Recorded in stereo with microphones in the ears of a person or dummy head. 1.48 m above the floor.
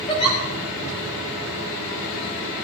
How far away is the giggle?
About 5 m.